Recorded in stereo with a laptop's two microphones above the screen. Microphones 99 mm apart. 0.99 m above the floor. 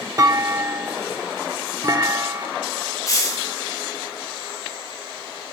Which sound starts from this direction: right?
A clunk, at 0.2 s.